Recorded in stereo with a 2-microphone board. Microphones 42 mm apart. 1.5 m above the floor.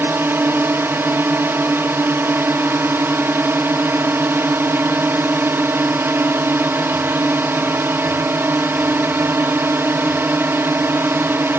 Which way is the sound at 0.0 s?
65° right (ahead or behind).